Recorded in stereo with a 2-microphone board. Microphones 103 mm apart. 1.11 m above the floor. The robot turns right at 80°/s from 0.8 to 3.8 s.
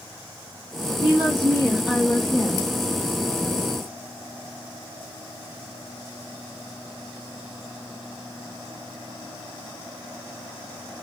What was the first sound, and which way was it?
A woman speaking, 75° right.